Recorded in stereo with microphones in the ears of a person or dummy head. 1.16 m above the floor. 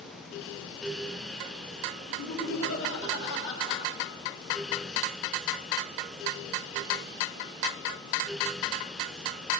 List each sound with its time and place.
2.1 s laughter: 75° left (ahead or behind), 2.5 m; by 3.8 s 65° left (ahead or behind), 1.7 m